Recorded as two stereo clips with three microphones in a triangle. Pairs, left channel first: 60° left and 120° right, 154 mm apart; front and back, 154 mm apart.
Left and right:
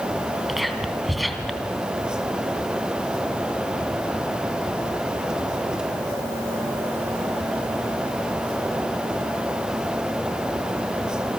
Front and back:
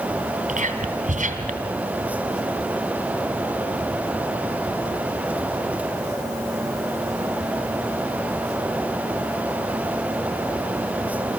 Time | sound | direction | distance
0.5 | whispering | 150° left | 2.5 m